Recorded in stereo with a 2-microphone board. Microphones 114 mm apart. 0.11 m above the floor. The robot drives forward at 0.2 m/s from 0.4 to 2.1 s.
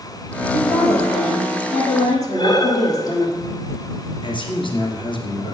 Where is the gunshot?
I don't hear a gunshot.